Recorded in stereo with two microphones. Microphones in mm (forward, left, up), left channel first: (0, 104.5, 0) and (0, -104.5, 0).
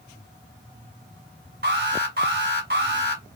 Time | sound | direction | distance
1.6 | an alarm | 55° right (ahead or behind) | 1.7 m